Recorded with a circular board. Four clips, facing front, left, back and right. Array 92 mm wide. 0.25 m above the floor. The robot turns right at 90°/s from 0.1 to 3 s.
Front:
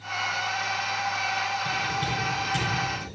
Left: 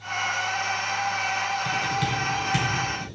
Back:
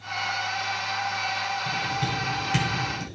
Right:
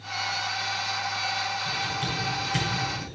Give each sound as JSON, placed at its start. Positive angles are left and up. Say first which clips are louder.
{"t": 1.6, "sound": "typing on a keyboard", "louder": "left 5 dB, even", "azimuth_deg": 65, "distance_m": 2.0}